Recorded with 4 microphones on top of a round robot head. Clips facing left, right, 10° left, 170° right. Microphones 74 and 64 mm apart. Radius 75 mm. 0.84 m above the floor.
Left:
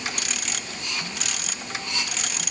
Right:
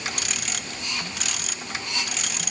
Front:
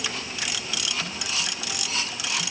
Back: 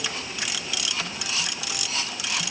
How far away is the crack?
No crack in this recording.